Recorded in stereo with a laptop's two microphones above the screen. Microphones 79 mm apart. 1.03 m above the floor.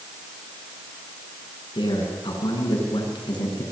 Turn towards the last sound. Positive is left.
turn(degrees=75)  # may be behind; listen again after turning